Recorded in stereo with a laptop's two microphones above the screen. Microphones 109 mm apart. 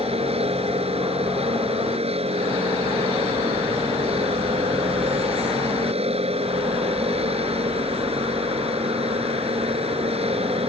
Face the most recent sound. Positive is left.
turn(degrees=-70)  # may be behind; listen again after turning